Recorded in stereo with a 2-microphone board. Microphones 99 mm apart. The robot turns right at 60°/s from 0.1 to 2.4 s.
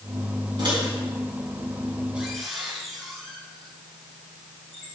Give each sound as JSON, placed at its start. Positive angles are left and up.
{"t": 0.6, "sound": "a microwave", "side_deg": -50, "distance_m": 2.0}